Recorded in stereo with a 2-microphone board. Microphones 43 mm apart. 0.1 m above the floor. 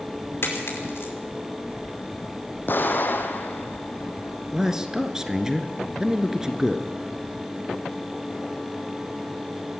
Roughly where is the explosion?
Left.